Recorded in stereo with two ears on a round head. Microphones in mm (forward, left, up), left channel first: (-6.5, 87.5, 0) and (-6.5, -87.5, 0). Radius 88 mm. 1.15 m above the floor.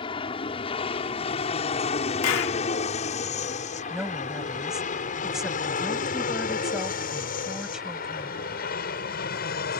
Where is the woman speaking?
Centre (ahead or behind).